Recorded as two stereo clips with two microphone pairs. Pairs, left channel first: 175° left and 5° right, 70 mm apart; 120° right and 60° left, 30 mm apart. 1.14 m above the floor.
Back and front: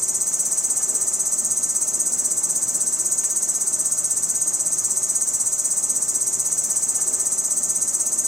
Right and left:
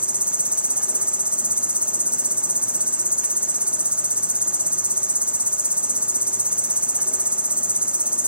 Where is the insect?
80° left, 0.7 m.